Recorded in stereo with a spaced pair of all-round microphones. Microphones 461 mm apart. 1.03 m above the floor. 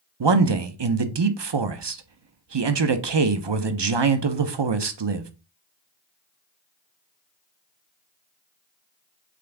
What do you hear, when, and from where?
0.2 s a man speaking: 65° right (ahead or behind), 0.6 m